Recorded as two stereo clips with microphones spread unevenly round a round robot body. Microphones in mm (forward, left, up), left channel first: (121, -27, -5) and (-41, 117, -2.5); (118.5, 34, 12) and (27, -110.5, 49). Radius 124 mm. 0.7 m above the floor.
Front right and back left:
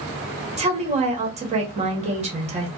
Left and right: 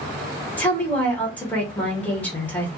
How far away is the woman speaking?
About 1.0 m.